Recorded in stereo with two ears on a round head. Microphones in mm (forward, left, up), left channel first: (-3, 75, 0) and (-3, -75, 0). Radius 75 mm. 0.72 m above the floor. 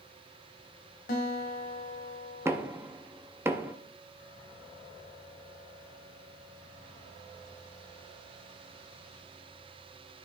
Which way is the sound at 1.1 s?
55° left (ahead or behind).